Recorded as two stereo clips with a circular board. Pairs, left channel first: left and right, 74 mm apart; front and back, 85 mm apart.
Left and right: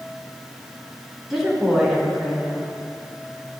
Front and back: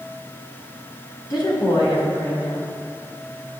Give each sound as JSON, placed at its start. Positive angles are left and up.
{"t": 1.3, "sound": "a woman speaking", "azimuth_deg": -5, "distance_m": 3.0}